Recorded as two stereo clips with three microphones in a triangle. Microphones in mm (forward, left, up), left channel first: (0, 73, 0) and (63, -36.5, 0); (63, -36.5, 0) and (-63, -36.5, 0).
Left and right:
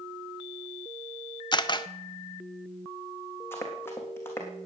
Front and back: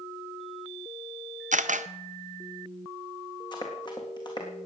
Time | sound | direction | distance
1.5 | a camera shutter | 170° left | 0.7 m
3.5 | running footsteps | 50° left | 3.5 m